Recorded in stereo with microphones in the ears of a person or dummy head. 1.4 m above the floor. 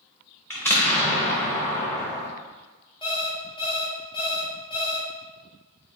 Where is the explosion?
10° left (ahead or behind), 0.7 m.